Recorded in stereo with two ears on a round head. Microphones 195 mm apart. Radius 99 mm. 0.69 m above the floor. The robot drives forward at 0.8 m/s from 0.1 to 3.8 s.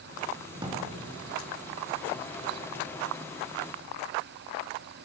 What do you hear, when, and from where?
0.6 s a drawer: 25° right (ahead or behind), 3 m; by 0.8 s 20° right (ahead or behind), 3.5 m